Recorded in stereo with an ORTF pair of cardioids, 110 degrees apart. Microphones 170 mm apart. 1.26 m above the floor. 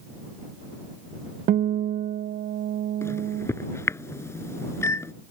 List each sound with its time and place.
1.5 s a guitar: 55° right
3.0 s a microwave: 15° left